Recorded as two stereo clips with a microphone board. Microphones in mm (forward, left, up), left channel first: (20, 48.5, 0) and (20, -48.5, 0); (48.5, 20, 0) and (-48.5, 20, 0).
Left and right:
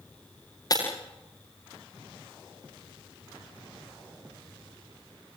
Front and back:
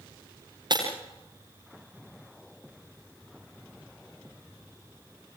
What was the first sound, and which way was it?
Breaking glass, 140° left.